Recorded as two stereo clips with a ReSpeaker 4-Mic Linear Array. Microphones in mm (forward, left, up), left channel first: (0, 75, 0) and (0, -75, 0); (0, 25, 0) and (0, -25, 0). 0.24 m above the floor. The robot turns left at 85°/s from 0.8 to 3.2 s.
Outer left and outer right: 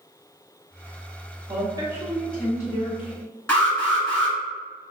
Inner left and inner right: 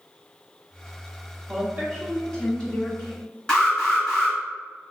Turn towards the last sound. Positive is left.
turn(degrees=15)  # may be behind; listen again after turning